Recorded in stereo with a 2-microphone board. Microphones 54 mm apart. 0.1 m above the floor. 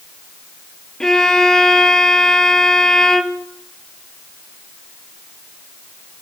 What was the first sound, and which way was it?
A violin, 10° left (ahead or behind).